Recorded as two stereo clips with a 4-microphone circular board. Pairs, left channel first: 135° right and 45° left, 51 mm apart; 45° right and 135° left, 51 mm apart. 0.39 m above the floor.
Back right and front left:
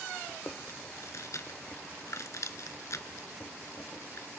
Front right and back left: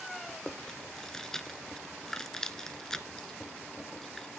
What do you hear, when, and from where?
0.3 s chewing: 125° right, 0.9 m